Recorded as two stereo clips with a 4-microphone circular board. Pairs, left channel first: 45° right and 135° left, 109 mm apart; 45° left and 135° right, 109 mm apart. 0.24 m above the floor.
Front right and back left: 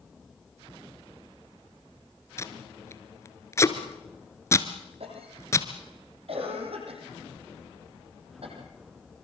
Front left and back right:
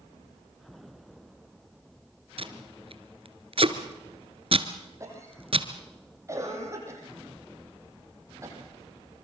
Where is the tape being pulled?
110° right, 1.6 m.